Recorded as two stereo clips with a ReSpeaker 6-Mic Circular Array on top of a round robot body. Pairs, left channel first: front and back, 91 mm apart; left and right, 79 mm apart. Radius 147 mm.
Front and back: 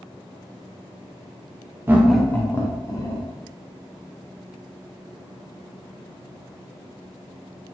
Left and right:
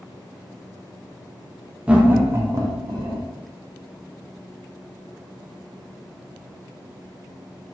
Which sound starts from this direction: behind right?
Laughter, at 1.9 s.